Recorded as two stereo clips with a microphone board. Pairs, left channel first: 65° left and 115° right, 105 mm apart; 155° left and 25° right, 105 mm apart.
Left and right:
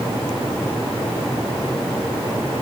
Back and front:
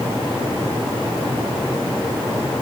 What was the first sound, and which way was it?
Only background noise.